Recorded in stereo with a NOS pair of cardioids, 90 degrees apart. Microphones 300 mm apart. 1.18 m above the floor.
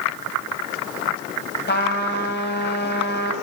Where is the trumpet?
35° left, 4.5 m.